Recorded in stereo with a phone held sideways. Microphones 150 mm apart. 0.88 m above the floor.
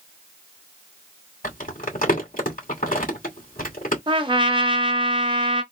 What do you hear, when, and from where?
1.4 s crumpling: 60° left (ahead or behind), 2.5 m
4.1 s a trumpet: 30° right (ahead or behind), 0.7 m